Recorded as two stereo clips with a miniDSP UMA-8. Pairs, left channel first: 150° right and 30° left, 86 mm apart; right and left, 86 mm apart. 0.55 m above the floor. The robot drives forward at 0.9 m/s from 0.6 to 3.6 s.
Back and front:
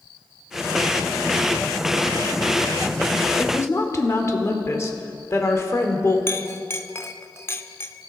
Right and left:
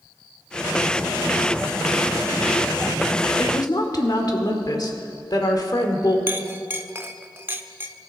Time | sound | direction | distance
3.4 | a woman speaking | 95° right | 1.7 m
6.3 | a clink | 150° left | 0.7 m